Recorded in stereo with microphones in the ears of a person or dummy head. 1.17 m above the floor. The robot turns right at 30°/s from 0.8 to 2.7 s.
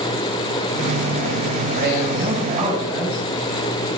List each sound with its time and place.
1.7 s a man speaking: 40° right (ahead or behind), 6 m; by 3.2 s 10° right (ahead or behind), 6 m